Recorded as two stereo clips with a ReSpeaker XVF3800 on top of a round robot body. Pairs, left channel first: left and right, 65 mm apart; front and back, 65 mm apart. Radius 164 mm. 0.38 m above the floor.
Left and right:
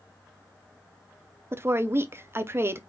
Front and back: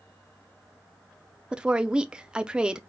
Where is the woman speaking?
110° right, 1.0 m.